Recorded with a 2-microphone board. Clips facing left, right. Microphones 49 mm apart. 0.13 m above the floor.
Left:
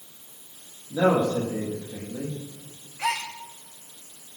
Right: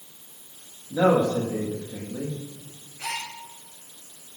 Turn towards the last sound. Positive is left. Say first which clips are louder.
# left 5 dB
turn(degrees=75)  # may be behind; listen again after turning